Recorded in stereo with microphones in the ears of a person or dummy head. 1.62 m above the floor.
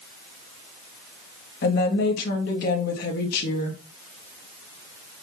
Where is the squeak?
I don't hear a squeak.